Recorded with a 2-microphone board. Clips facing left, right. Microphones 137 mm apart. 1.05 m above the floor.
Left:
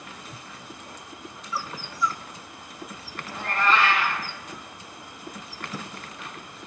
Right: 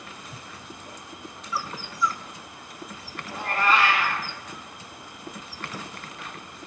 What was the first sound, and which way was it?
A cat meowing, 10° right (ahead or behind).